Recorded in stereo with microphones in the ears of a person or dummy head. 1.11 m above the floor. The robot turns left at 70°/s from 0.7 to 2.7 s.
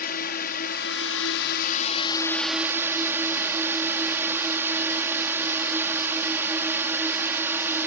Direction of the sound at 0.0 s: 125° left.